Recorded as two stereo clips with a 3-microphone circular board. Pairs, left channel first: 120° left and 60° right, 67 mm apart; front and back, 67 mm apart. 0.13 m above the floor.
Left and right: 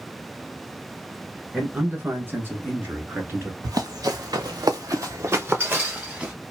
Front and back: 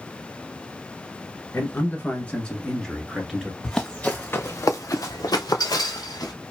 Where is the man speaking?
20° right, 1.5 m; by 3.5 s 95° right, 1.8 m.